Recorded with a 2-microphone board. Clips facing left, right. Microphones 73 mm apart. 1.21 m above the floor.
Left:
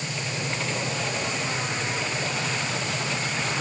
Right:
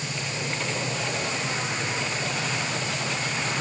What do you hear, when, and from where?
Only background noise.